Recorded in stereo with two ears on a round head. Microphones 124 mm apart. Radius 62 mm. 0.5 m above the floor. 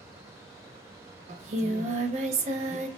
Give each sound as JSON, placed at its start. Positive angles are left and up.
{"t": 1.3, "sound": "singing", "side_deg": -45, "distance_m": 0.5}